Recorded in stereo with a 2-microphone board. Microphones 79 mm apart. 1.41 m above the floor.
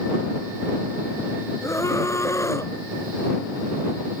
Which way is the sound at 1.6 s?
35° left (ahead or behind).